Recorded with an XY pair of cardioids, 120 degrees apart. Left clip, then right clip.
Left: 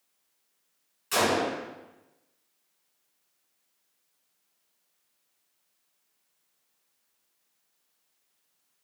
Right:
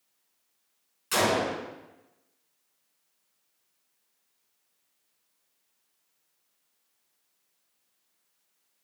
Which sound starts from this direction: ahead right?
A gunshot, at 1.1 s.